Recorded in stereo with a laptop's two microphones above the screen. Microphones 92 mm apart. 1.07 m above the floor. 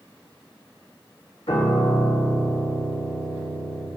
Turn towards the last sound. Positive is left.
turn(degrees=75)  # may be behind; listen again after turning